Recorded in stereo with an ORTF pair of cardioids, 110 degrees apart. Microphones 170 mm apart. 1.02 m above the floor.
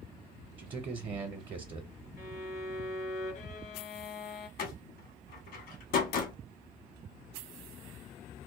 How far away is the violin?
About 0.7 m.